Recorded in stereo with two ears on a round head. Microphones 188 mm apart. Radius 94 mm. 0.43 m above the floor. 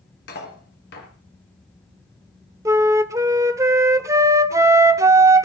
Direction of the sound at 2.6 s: 15° right (ahead or behind).